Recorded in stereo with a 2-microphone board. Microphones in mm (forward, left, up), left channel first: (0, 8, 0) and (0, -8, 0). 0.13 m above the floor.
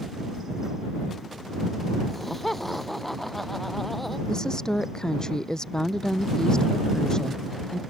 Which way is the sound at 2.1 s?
10° left (ahead or behind).